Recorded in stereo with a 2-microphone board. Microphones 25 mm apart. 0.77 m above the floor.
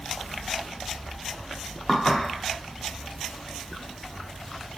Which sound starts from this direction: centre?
Dishes clattering, at 1.9 s.